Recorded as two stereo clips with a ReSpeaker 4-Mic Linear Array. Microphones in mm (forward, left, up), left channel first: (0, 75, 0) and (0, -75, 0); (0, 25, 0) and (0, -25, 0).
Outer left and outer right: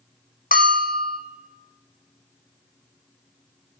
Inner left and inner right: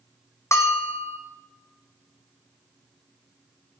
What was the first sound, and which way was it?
A bell, 75° left (ahead or behind).